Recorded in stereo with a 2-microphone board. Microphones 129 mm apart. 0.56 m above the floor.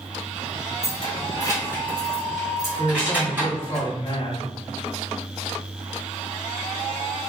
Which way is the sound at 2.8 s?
25° left (ahead or behind).